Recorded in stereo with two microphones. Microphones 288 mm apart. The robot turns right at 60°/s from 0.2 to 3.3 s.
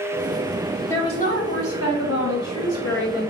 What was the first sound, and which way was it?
A woman speaking, 5° left.